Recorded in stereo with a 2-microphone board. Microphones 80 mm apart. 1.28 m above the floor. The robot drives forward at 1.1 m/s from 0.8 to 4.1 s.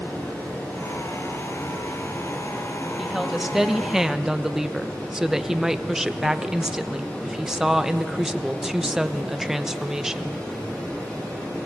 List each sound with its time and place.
0.0 s running water: 25° left (ahead or behind), 9.5 m; by 11.7 s 20° left (ahead or behind), 13 m
3.0 s a woman speaking: 5° right (ahead or behind), 2 m